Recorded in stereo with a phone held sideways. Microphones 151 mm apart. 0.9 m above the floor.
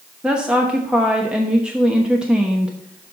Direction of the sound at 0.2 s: 5° right (ahead or behind).